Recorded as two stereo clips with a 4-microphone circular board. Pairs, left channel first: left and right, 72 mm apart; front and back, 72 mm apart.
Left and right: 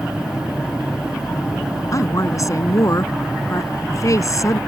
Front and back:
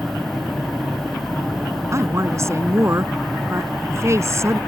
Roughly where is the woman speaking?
Behind left.